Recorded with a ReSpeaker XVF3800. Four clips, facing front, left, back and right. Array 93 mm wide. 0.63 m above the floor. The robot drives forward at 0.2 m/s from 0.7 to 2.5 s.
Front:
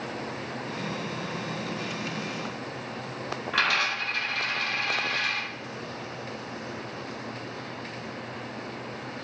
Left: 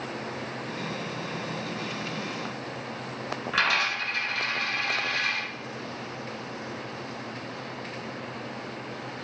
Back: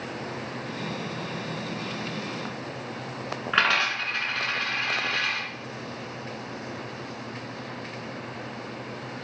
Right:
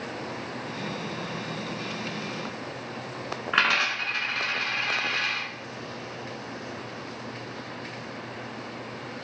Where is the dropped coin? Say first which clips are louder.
Right 2 dB, back 3 dB; 140° right, 0.8 m.